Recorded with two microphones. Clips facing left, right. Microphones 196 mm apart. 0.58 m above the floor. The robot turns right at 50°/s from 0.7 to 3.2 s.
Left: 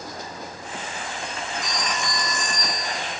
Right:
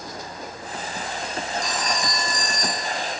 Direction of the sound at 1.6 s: 175° left.